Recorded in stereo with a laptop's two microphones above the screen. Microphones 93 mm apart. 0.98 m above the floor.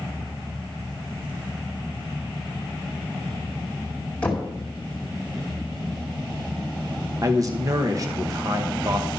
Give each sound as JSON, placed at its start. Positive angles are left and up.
{"t": 4.2, "sound": "knocking", "side_deg": 15, "distance_m": 1.9}
{"t": 7.2, "sound": "a man speaking", "side_deg": -35, "distance_m": 1.0}